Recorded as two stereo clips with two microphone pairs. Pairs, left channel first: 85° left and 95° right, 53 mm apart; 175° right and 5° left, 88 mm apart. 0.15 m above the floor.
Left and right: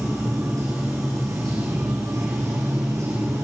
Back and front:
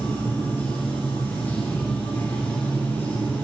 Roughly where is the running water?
Right.